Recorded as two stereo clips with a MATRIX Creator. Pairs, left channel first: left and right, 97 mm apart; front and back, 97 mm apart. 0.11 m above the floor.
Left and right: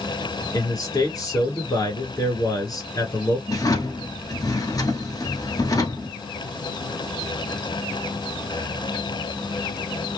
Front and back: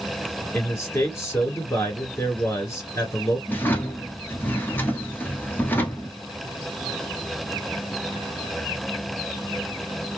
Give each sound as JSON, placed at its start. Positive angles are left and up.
{"t": 0.5, "sound": "a man speaking", "azimuth_deg": 55, "distance_m": 2.5}
{"t": 3.5, "sound": "a drawer", "azimuth_deg": 60, "distance_m": 1.0}